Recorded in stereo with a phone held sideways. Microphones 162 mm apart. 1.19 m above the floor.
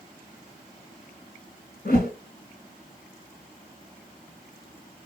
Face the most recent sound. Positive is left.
turn(degrees=65)  # may be behind; listen again after turning